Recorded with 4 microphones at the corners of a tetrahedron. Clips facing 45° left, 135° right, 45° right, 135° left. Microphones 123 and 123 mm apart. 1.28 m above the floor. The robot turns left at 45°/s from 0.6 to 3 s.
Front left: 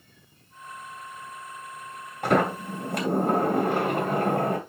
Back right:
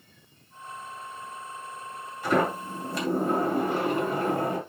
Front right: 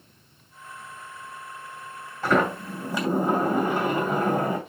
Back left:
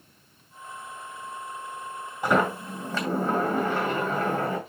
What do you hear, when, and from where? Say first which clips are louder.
2.2 s a sliding door: front left 2 dB, front right 1 dB; 65° left, 2 m; by 4.6 s 30° left, 2 m